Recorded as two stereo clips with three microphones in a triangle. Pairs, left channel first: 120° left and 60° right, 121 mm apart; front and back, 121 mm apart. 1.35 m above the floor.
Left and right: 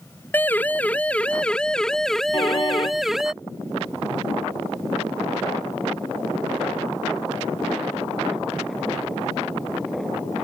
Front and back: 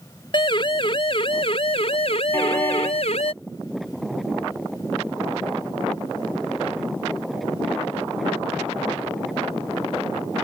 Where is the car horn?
70° left.